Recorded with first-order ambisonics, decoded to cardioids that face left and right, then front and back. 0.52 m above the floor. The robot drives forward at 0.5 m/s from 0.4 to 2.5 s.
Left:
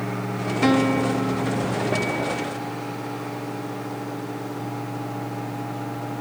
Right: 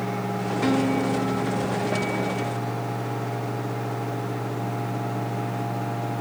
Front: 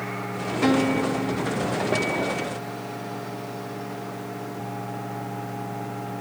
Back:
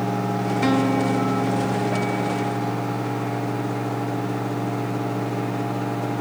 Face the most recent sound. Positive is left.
turn(degrees=155)